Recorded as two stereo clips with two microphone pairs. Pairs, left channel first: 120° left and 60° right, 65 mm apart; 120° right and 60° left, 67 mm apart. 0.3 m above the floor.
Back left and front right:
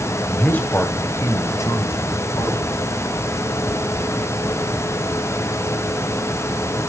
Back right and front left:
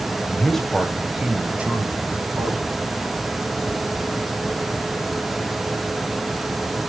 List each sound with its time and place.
0.2 s a man speaking: straight behind, 1.3 m; by 2.6 s 120° left, 2.5 m